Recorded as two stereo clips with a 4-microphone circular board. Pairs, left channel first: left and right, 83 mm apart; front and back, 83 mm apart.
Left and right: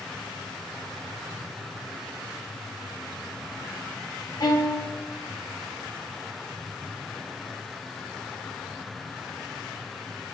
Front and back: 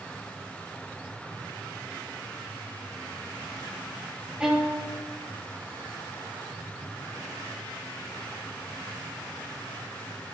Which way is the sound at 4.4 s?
100° left.